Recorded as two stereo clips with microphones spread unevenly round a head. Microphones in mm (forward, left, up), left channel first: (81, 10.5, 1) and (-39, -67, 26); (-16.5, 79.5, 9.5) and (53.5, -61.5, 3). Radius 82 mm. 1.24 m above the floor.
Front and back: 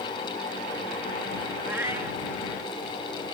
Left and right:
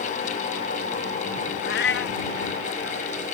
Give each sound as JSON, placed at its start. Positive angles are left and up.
{"t": 1.6, "sound": "a cat meowing", "azimuth_deg": 140}